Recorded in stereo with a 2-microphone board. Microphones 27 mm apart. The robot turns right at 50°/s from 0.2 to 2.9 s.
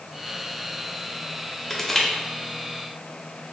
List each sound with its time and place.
1.7 s crushing: 5° left (ahead or behind), 0.9 m; by 2.1 s 15° left (ahead or behind), 0.9 m